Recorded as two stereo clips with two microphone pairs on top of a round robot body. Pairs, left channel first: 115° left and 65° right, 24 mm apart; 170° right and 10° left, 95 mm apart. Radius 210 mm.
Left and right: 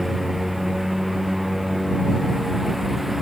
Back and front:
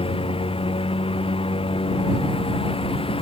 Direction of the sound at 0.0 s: 150° right.